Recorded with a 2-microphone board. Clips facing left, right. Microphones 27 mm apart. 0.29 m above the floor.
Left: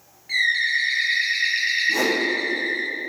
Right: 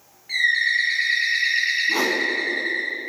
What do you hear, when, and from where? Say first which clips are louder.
0.3 s a bird: right 1 dB; centre (ahead or behind), 1.4 m
1.9 s a whoosh: even; 35° right (ahead or behind), 1.0 m